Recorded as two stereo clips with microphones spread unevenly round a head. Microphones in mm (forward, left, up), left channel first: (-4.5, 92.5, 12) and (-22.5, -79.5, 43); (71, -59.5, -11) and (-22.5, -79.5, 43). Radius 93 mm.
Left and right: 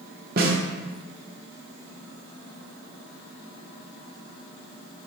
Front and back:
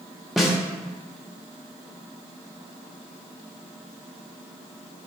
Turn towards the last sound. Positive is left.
turn(degrees=-105)